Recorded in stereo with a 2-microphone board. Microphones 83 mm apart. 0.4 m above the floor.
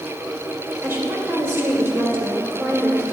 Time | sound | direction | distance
0.8 | a woman speaking | 25° right (ahead or behind) | 1.8 m